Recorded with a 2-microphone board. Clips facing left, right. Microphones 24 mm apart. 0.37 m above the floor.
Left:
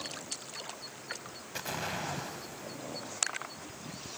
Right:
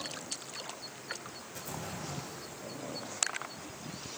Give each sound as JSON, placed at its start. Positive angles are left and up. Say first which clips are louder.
{"t": 1.6, "sound": "an explosion", "louder": "left 7 dB", "side_deg": 60, "distance_m": 1.4}